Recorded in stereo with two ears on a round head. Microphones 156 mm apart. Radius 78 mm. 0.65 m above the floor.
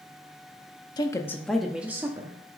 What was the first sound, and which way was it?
A woman speaking, 25° left (ahead or behind).